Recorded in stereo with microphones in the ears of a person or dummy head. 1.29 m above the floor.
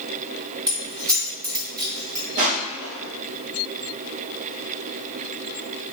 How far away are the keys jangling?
About 0.6 m.